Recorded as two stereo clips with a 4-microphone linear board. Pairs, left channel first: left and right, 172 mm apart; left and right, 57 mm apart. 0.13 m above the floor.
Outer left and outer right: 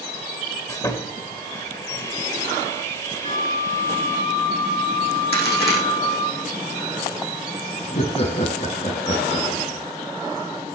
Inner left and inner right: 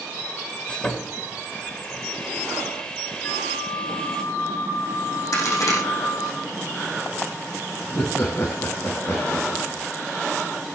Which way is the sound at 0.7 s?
20° left (ahead or behind).